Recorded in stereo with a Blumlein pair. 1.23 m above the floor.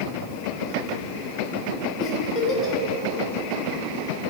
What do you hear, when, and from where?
2.0 s a giggle: 20° left, 1.4 m